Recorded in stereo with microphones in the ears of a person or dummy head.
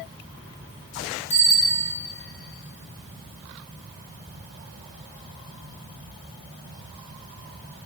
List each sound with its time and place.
1.3 s a bicycle bell: 30° left (ahead or behind), 3.5 m